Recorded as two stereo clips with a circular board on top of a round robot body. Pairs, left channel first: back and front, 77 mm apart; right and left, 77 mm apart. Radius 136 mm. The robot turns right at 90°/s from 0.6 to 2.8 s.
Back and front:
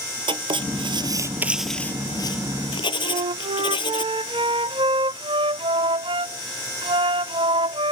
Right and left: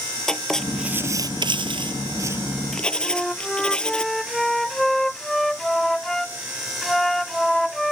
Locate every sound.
0.3 s writing: 5° right; by 4.0 s 170° right
3.0 s a flute: 5° right